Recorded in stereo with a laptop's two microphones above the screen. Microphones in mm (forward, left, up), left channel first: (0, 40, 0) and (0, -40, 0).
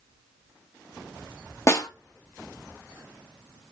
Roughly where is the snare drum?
Left.